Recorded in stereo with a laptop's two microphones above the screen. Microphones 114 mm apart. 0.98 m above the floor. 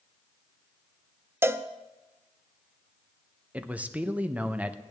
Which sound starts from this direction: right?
A cowbell, at 1.4 s.